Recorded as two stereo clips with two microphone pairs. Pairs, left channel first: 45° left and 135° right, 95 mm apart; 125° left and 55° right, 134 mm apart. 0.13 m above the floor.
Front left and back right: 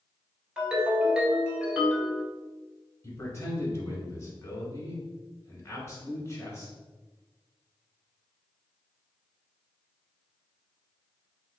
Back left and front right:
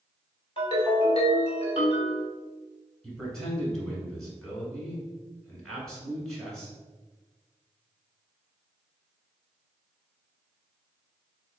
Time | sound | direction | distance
0.6 | a ringtone | 145° left | 1.3 m
3.0 | a man speaking | 45° left | 1.2 m